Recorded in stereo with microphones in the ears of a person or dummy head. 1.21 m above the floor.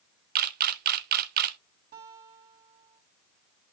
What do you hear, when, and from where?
0.3 s a camera shutter: 50° right (ahead or behind), 0.6 m
1.9 s a guitar: 55° right (ahead or behind), 2 m